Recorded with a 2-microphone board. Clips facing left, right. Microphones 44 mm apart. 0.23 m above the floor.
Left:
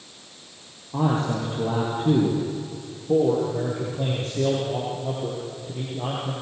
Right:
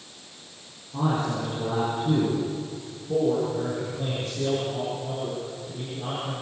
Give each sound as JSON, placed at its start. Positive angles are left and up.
{"t": 0.9, "sound": "a man speaking", "side_deg": 75, "distance_m": 7.0}
{"t": 3.1, "sound": "a man speaking", "side_deg": 70, "distance_m": 7.5}